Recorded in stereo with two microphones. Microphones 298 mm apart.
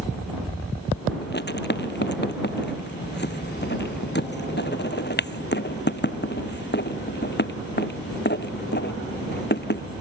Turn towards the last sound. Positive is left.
turn(degrees=35)  # may be behind; listen again after turning